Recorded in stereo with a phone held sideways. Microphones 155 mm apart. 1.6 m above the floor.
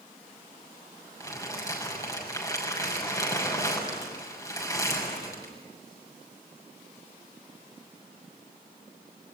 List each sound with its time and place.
1.2 s crumpling: 20° left (ahead or behind), 6.5 m